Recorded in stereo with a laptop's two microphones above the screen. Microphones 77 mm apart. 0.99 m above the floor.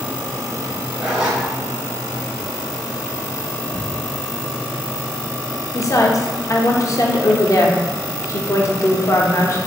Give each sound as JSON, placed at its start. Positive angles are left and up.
{"t": 1.0, "sound": "a zipper", "side_deg": -15, "distance_m": 1.6}
{"t": 3.7, "sound": "ticking", "side_deg": 0, "distance_m": 2.0}
{"t": 5.7, "sound": "a woman speaking", "side_deg": 45, "distance_m": 0.7}